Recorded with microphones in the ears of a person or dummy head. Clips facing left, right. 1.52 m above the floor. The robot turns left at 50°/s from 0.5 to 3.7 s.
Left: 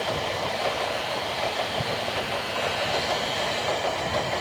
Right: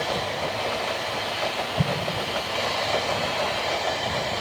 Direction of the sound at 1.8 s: 45° right (ahead or behind).